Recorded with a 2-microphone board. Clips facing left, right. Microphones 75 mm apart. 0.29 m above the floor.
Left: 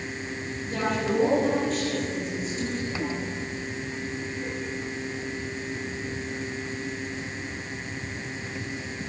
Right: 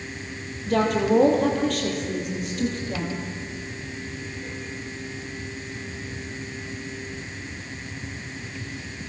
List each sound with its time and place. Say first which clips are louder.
0.7 s a woman speaking: right 6 dB; 80° right, 7 m; by 3.2 s 65° right (ahead or behind), 7.5 m